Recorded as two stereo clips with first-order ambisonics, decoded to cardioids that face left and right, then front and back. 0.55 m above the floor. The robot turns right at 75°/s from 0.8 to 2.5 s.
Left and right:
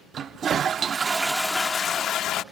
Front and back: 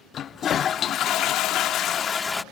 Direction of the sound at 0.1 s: 45° right.